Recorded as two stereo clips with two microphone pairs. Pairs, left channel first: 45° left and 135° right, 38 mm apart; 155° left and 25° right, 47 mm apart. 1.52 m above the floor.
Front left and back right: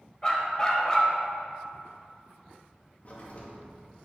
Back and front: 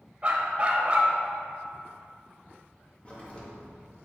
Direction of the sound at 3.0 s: 90° left.